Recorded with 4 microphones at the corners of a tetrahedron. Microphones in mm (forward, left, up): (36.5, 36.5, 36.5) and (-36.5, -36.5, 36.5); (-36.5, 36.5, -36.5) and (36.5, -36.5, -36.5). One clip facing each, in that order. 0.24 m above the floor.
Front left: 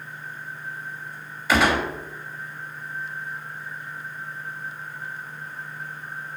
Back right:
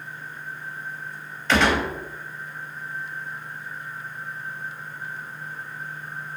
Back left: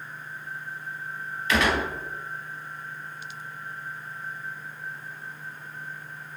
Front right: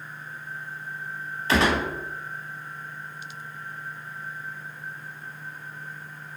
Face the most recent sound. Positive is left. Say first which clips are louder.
# even, front right 2 dB
turn(degrees=-30)